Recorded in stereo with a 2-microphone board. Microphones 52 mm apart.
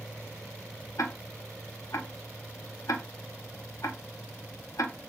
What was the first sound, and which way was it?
Ticking, 75° left (ahead or behind).